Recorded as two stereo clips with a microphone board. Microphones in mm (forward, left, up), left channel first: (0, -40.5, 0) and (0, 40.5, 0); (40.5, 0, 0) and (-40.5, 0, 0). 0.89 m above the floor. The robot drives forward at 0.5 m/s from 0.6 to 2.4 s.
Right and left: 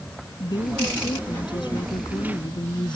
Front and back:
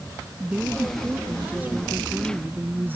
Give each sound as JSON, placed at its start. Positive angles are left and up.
{"t": 0.4, "sound": "a woman speaking", "azimuth_deg": -110}